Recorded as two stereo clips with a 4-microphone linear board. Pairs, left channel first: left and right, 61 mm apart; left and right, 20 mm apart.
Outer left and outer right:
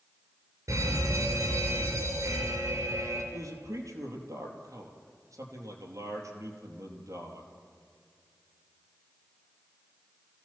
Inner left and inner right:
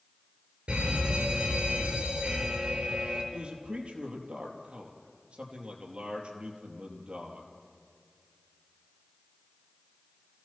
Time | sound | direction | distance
0.7 | a fire alarm | 55° right (ahead or behind) | 5 m
3.3 | a man speaking | 60° right (ahead or behind) | 4 m